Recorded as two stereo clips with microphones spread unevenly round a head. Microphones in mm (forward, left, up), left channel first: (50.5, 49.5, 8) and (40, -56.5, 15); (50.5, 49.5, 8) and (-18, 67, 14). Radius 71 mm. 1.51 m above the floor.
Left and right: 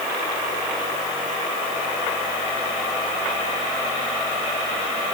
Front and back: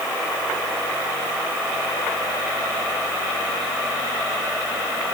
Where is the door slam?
I don't hear a door slam.